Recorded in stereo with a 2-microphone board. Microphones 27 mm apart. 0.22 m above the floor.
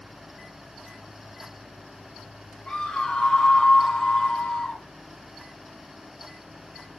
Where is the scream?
40° left (ahead or behind), 3 m.